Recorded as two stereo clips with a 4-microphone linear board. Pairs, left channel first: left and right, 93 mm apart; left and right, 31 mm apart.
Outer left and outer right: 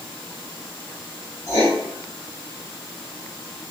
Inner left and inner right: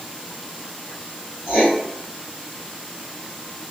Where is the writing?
40° right (ahead or behind), 1.3 m.